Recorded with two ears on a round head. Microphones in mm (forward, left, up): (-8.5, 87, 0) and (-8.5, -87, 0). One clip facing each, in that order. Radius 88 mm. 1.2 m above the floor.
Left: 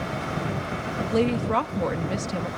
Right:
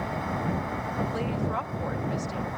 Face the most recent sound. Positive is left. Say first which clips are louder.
# left 12 dB
turn(degrees=70)  # may be behind; listen again after turning